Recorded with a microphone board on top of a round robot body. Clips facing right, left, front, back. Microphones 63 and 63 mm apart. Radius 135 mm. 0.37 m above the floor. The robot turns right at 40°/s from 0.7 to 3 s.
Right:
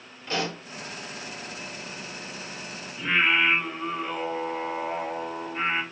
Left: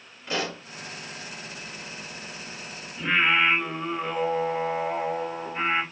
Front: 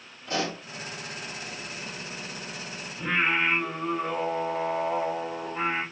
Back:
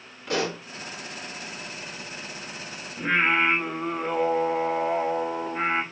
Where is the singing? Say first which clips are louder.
Left 1 dB, back 3 dB; straight behind, 2 m.